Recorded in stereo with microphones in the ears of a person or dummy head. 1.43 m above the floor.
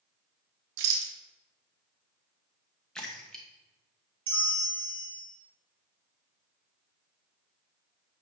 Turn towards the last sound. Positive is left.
turn(degrees=-30)  # may be behind; listen again after turning